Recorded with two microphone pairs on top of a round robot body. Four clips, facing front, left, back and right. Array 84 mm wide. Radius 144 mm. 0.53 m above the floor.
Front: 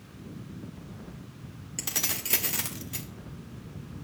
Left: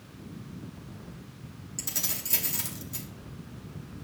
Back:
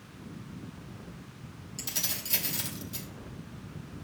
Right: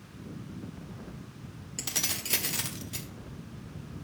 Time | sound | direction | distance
1.8 | keys jangling | 25° right | 1.5 m